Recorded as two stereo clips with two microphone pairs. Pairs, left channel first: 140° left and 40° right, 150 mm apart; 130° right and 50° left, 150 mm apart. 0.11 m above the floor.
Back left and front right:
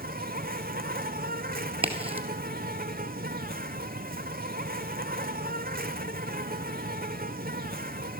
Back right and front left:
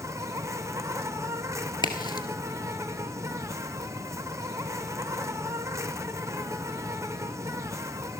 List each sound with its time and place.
0.0 s an insect: 20° right, 0.8 m
1.8 s a crack: 75° right, 1.7 m